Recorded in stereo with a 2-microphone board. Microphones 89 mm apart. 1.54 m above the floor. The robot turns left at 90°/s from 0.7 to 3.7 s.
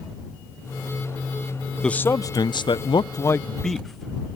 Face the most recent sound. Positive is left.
turn(degrees=0)